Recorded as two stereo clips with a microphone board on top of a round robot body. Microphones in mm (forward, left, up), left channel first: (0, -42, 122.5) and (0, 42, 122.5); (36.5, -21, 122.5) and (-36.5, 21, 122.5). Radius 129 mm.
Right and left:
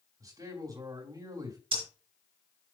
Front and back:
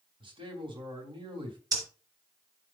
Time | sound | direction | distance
0.2 | a man speaking | 135° left | 3.5 m
1.7 | breathing | 105° left | 4 m